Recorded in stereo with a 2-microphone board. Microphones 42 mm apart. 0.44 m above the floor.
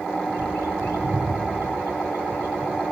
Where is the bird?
85° left, 8.5 m.